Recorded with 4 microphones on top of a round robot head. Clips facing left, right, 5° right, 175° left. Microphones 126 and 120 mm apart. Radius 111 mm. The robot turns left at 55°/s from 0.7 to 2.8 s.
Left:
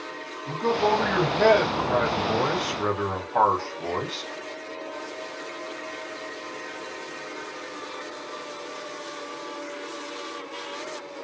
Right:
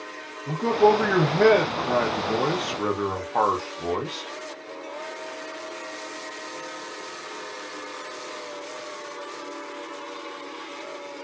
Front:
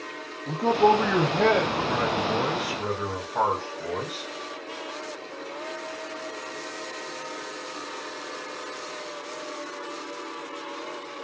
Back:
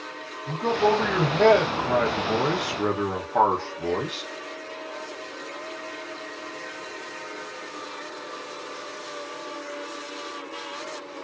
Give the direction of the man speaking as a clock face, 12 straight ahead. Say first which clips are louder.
Right 4 dB, front 2 dB; 1 o'clock.